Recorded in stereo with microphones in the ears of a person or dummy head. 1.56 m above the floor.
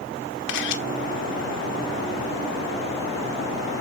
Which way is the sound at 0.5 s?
70° left (ahead or behind).